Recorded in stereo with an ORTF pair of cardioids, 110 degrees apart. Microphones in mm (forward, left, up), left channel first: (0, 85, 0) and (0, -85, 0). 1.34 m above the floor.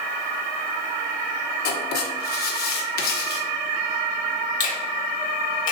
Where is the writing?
60° left, 1.0 m.